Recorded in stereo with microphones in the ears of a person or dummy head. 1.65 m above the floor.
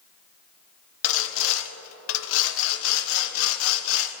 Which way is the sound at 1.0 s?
70° left (ahead or behind).